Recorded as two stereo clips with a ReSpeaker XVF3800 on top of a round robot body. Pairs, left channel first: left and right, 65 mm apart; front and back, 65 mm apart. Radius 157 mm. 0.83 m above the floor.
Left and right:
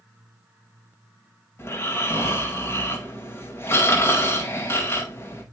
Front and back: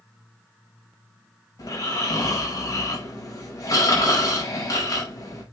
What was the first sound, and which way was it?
Snoring, 40° left.